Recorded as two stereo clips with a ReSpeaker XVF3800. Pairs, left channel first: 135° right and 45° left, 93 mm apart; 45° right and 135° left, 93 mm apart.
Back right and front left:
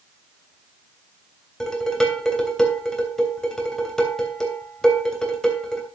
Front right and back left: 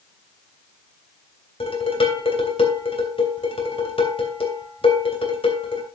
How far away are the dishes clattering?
About 3 m.